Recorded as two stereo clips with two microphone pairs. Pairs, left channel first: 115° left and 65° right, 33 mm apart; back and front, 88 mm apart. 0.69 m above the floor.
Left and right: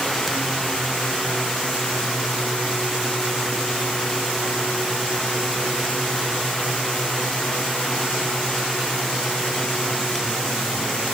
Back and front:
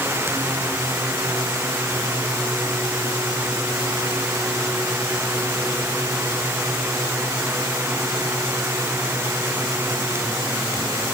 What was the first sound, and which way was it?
Only background noise.